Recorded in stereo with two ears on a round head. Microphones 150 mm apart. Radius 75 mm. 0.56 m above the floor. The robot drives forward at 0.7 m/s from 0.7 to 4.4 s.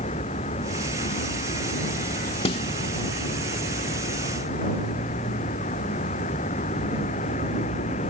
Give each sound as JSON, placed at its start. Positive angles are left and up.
{"t": 0.0, "sound": "a vehicle", "side_deg": 40}
{"t": 2.5, "sound": "a snare drum", "side_deg": 35}